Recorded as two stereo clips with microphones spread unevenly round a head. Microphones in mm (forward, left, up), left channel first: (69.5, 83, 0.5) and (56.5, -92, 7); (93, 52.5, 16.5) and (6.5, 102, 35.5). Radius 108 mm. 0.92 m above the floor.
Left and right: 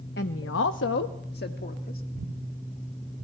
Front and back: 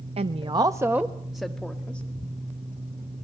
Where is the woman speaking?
125° left, 0.7 m; by 2.0 s 50° left, 1.8 m.